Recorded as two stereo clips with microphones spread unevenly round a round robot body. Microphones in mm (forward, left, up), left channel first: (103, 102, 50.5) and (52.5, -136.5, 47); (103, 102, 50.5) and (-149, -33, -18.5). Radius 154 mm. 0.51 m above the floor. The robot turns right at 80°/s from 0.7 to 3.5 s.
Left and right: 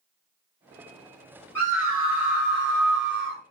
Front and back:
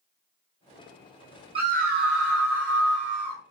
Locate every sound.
1.6 s a scream: 155° left, 1.2 m; by 3.4 s 55° right, 1.2 m